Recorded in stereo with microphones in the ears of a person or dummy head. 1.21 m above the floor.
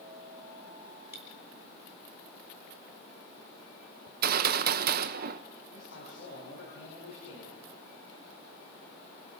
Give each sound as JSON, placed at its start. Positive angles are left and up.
{"t": 1.1, "sound": "a dropped coin", "side_deg": -15, "distance_m": 5.5}
{"t": 4.1, "sound": "a gunshot", "side_deg": -50, "distance_m": 1.0}
{"t": 5.7, "sound": "a man speaking", "side_deg": 85, "distance_m": 7.0}